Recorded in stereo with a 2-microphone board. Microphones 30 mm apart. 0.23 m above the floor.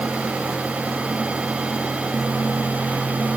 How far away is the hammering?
I don't hear hammering.